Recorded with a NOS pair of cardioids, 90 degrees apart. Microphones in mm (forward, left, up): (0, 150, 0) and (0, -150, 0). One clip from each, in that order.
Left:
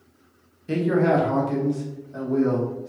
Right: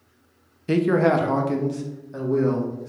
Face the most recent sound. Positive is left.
turn(degrees=-30)